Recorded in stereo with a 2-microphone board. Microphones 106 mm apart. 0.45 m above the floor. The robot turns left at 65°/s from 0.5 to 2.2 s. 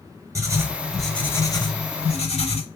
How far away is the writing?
About 0.5 m.